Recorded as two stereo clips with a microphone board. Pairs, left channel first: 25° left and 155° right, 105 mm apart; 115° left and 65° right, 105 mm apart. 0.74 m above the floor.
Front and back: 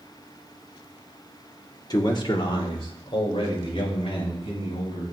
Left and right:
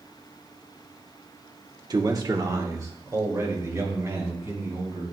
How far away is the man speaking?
About 1.4 m.